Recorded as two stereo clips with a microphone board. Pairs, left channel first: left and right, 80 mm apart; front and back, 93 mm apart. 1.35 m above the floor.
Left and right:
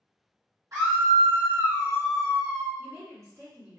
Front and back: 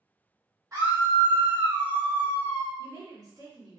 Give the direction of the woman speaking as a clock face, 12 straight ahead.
5 o'clock.